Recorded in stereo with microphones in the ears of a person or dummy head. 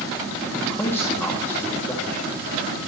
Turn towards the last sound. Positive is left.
turn(degrees=15)  # may be behind; listen again after turning